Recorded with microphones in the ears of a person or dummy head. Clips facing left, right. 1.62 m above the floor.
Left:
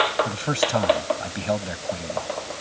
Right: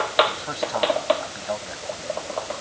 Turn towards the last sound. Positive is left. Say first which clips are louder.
# left 4 dB
turn(degrees=40)  # may be behind; listen again after turning